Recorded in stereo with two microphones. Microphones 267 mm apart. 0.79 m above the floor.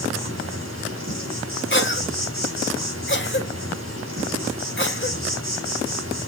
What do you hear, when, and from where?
0.0 s an insect: 50° right (ahead or behind), 7 m
1.7 s a cough: 45° left (ahead or behind), 2.5 m